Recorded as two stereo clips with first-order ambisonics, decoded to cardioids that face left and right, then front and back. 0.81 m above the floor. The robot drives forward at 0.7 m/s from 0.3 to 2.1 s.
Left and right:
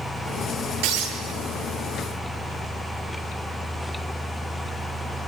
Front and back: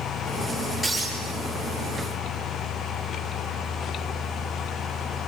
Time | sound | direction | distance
0.8 | breaking glass | 80° right | 10 m